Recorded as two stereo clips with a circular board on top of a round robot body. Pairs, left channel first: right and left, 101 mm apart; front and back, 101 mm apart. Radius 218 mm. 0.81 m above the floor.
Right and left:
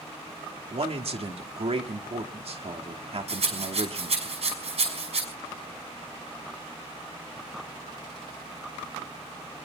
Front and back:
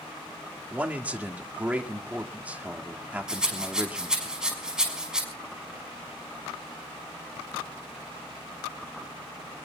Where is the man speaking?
105° left, 2.5 m.